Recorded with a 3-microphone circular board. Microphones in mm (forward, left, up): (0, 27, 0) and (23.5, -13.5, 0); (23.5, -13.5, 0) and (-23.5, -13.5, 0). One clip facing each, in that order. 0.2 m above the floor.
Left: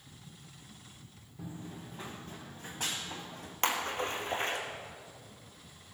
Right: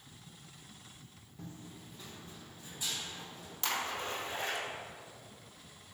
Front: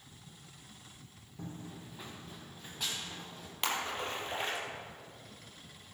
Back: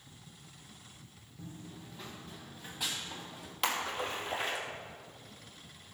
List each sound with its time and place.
1.4 s running footsteps: 35° left, 0.6 m; by 3.5 s 95° left, 3.5 m
3.6 s a splash: 95° left, 2.5 m